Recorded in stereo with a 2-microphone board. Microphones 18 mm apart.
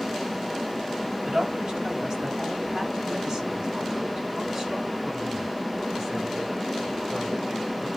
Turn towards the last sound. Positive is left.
turn(degrees=-40)  # may be behind; listen again after turning